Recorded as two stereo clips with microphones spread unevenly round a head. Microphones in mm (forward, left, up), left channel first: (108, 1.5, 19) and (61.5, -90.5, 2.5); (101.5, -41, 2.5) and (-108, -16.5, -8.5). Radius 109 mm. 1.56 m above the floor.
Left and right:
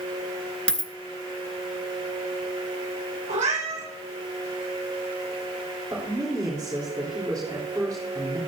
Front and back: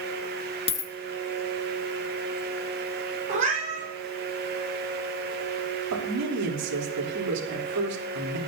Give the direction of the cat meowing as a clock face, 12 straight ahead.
4 o'clock.